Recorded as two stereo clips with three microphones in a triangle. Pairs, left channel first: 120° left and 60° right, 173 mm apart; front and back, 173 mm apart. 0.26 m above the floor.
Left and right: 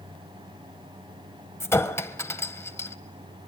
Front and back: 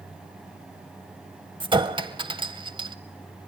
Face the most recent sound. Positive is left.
turn(degrees=175)